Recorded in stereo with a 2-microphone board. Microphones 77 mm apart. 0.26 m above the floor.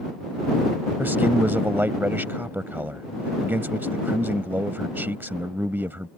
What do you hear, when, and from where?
1.0 s a man speaking: 25° right (ahead or behind)